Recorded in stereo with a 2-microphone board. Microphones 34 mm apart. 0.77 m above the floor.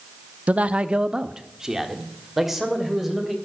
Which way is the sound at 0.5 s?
45° right (ahead or behind).